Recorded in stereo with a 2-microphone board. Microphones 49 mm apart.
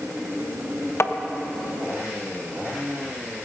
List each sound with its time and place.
1.0 s tapping: 55° left (ahead or behind), 0.5 m